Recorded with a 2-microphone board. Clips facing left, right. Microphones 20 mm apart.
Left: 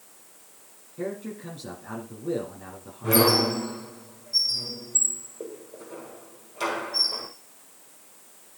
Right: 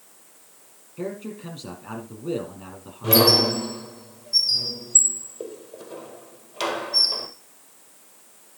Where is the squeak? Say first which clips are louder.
Right 3 dB; 70° right (ahead or behind), 1.9 m.